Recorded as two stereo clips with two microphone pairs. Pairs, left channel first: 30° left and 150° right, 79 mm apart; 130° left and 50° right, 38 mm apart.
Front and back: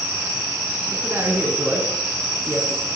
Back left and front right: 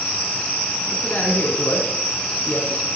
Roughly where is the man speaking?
Behind.